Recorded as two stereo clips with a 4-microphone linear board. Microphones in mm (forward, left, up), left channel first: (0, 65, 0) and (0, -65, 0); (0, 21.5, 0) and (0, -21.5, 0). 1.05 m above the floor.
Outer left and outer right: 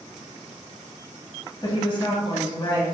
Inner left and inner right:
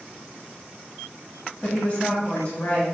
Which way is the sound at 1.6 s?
35° left (ahead or behind).